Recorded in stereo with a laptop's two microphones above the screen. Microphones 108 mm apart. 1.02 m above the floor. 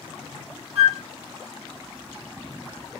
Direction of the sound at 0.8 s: 70° right (ahead or behind).